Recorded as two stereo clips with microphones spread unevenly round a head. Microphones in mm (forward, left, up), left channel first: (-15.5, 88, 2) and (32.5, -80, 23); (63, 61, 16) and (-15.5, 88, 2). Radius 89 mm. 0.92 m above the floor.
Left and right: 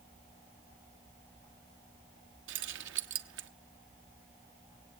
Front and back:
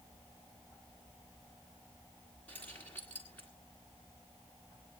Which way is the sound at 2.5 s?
100° right.